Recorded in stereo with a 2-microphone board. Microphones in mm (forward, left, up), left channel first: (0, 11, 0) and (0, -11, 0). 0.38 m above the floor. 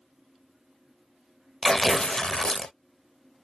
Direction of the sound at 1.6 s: 35° left (ahead or behind).